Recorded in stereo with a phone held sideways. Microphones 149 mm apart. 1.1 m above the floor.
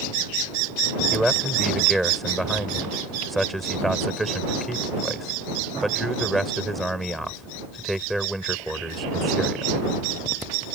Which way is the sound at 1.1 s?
Centre (ahead or behind).